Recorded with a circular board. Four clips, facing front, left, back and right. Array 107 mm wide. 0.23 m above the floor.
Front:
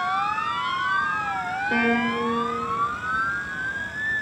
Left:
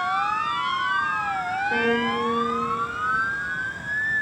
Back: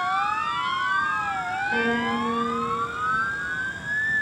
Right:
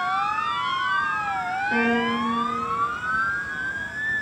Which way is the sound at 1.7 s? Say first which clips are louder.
Right 1 dB, front 3 dB; 5° left.